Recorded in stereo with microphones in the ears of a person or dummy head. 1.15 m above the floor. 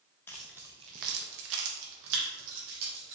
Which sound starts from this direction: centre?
Keys jangling, at 0.3 s.